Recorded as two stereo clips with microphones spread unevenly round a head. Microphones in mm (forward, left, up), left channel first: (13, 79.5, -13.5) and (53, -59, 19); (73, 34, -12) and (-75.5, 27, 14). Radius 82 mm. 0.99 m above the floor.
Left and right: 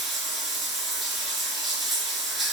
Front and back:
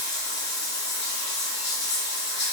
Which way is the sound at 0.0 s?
10° left.